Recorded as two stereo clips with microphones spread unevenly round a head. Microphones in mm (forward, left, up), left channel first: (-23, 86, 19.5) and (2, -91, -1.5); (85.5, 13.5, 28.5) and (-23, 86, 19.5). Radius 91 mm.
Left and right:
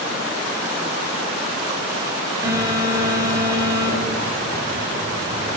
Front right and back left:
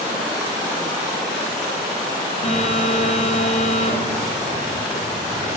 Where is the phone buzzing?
5° right, 2.5 m.